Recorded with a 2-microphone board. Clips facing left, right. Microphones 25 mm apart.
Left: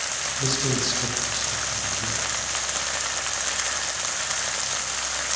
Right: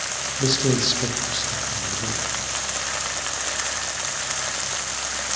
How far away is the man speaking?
About 4 m.